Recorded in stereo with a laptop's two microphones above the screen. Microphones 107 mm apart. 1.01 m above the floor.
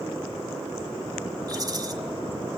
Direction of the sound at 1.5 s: 40° right (ahead or behind).